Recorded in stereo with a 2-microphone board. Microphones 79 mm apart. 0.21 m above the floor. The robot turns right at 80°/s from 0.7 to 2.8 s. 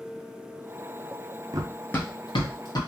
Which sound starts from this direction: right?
Running footsteps, at 1.5 s.